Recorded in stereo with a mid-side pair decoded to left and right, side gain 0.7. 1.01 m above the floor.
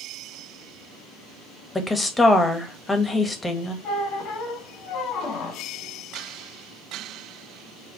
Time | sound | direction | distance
1.8 | a woman speaking | 15° left | 1.0 m
3.8 | a squeak | 50° left | 1.3 m